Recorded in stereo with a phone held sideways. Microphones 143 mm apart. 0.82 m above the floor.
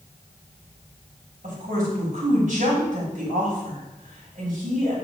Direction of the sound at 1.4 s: 65° right (ahead or behind).